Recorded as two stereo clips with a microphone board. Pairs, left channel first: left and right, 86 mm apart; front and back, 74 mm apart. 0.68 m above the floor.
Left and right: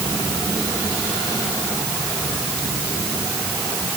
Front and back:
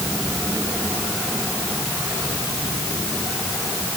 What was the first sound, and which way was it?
Only background noise.